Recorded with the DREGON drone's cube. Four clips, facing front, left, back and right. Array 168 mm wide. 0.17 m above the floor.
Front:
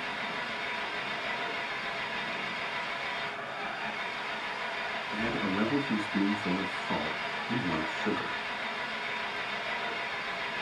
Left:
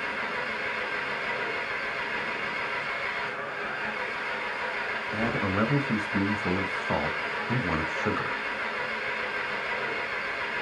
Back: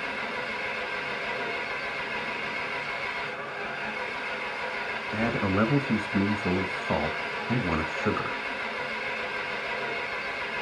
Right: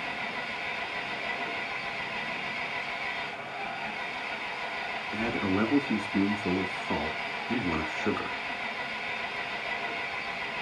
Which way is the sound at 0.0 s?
110° left.